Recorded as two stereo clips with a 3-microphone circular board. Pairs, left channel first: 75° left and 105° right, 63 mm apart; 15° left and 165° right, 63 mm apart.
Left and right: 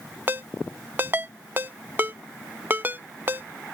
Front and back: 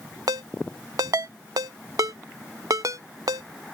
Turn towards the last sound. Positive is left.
turn(degrees=-160)